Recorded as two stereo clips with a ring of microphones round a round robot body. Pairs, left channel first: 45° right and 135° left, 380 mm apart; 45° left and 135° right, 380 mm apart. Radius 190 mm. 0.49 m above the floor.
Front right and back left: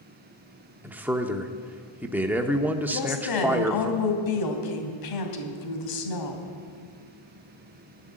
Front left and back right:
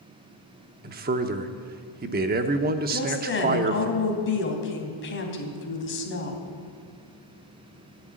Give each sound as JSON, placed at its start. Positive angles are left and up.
{"t": 0.8, "sound": "a man speaking", "azimuth_deg": -145, "distance_m": 0.9}
{"t": 2.9, "sound": "a woman speaking", "azimuth_deg": -15, "distance_m": 3.0}